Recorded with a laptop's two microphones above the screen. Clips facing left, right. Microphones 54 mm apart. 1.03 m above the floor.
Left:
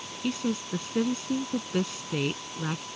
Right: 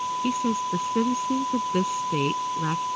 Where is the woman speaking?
15° right (ahead or behind).